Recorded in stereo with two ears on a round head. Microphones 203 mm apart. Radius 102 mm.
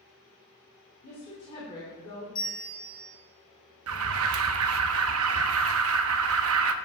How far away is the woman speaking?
About 3 m.